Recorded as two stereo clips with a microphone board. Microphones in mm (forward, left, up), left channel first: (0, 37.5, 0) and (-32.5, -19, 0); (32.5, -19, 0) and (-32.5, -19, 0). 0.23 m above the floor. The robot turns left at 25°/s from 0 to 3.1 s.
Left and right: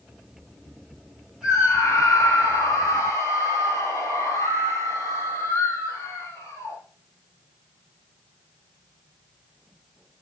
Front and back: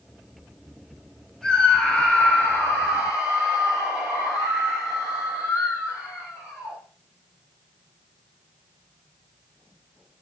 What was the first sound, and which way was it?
A scream, 80° left.